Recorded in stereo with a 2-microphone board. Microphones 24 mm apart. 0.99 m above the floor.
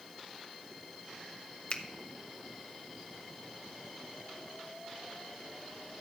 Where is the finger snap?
50° left (ahead or behind), 0.8 m.